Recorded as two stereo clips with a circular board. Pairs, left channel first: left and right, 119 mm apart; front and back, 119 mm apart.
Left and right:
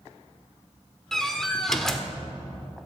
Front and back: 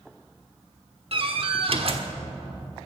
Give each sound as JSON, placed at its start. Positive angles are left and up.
{"t": 1.1, "sound": "a door slam", "azimuth_deg": 175, "distance_m": 1.3}